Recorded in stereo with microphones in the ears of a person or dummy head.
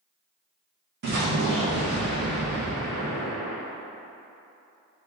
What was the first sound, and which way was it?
An explosion, 50° right (ahead or behind).